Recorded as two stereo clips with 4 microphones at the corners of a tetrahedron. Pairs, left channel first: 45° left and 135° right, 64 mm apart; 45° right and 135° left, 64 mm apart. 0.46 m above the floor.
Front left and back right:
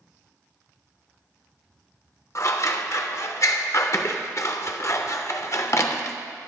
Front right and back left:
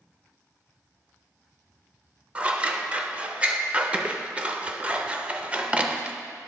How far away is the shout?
No shout in this recording.